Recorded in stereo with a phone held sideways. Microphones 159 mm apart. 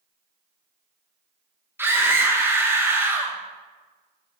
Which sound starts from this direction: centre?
A scream, at 1.8 s.